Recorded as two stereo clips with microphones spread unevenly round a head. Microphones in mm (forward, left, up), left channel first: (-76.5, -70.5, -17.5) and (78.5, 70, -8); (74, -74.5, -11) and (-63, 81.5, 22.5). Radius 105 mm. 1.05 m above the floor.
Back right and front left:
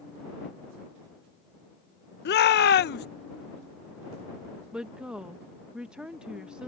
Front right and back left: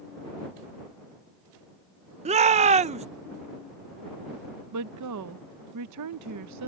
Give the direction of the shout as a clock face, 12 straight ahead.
6 o'clock.